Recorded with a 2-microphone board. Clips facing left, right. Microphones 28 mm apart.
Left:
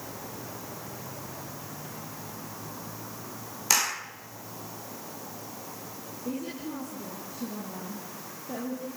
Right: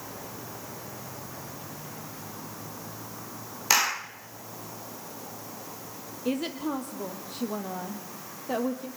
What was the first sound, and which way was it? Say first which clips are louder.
A clap: right 3 dB; 20° right (ahead or behind).